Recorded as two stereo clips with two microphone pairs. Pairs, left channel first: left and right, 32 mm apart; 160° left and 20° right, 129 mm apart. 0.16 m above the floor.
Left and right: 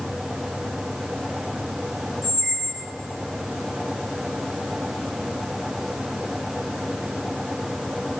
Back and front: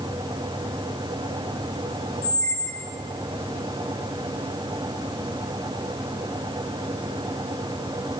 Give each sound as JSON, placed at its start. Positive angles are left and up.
{"t": 2.2, "sound": "a squeak", "azimuth_deg": -30, "distance_m": 1.3}